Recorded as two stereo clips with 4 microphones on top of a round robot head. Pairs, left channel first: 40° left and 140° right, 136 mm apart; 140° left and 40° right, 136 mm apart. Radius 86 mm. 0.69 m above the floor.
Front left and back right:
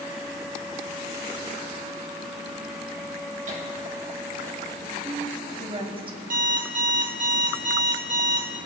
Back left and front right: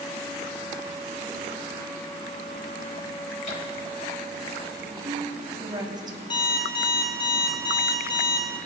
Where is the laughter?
175° right, 3 m.